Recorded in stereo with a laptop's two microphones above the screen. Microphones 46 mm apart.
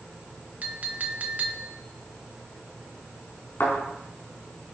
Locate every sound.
0.6 s a clink: 35° right (ahead or behind), 1.1 m
3.6 s a thud: 55° left (ahead or behind), 4 m